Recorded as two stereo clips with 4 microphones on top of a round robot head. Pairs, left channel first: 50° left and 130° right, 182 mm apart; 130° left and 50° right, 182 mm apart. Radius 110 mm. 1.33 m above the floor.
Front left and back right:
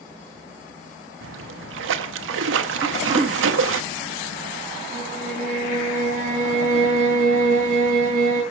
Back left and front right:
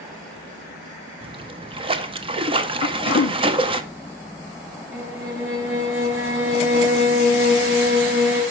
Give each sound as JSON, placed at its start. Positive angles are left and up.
{"t": 1.2, "sound": "a splash", "azimuth_deg": -110, "distance_m": 0.9}
{"t": 2.8, "sound": "throat clearing", "azimuth_deg": 160, "distance_m": 0.6}
{"t": 4.9, "sound": "a violin", "azimuth_deg": -80, "distance_m": 5.0}